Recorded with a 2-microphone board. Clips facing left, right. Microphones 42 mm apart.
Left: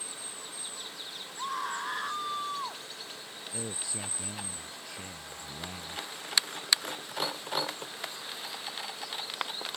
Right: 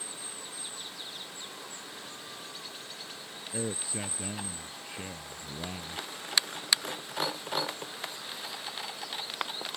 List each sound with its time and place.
1.4 s a scream: 70° left (ahead or behind)
3.5 s a man speaking: 20° right (ahead or behind)